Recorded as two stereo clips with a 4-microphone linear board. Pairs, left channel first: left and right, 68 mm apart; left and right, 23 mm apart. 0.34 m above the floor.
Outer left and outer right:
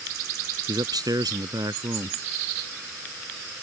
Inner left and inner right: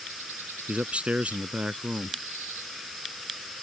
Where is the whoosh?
I don't hear a whoosh.